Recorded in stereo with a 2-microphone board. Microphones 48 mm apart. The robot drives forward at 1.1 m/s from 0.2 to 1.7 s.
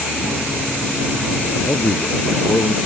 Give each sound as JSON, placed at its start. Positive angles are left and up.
{"t": 1.6, "sound": "a man speaking", "side_deg": 70}